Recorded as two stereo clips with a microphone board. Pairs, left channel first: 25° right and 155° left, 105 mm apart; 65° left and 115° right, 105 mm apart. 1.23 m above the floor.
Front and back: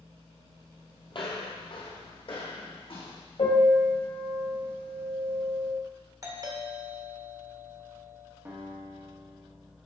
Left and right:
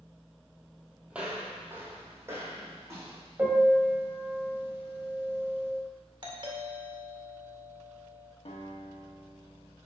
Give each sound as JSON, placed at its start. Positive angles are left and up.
{"t": 1.1, "sound": "footsteps", "azimuth_deg": -35, "distance_m": 1.9}
{"t": 3.4, "sound": "a piano", "azimuth_deg": -40, "distance_m": 2.0}
{"t": 6.2, "sound": "a doorbell", "azimuth_deg": -150, "distance_m": 1.9}
{"t": 8.4, "sound": "a guitar", "azimuth_deg": 90, "distance_m": 2.0}